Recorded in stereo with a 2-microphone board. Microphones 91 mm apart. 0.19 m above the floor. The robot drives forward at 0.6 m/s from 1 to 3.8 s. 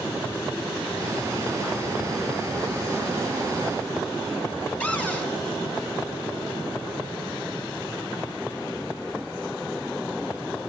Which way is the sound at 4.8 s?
15° left (ahead or behind).